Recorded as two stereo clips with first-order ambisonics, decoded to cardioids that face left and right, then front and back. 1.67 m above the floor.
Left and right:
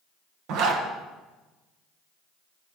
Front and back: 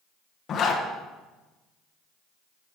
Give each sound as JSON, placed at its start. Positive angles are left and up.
{"t": 0.5, "sound": "a zipper", "azimuth_deg": -60, "distance_m": 1.1}